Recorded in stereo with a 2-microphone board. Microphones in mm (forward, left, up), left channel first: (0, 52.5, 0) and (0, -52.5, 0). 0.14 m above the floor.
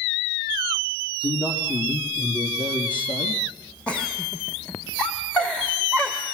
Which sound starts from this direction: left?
A man speaking, at 1.2 s.